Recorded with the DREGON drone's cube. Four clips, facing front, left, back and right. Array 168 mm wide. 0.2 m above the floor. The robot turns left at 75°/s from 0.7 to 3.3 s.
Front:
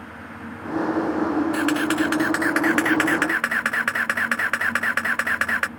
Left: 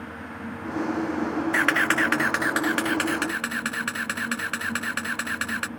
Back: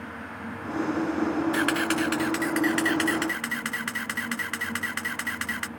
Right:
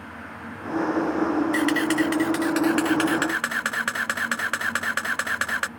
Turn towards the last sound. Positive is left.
turn(degrees=-25)